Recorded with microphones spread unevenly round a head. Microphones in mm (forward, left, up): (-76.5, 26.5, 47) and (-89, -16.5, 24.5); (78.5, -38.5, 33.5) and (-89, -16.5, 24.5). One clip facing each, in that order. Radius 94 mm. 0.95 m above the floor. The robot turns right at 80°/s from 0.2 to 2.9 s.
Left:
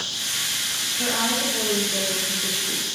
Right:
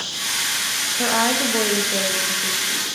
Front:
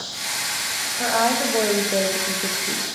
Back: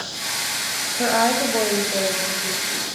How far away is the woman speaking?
About 0.8 m.